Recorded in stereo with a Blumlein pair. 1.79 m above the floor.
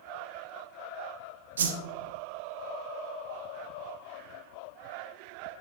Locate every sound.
1.6 s a whoosh: 65° right, 0.9 m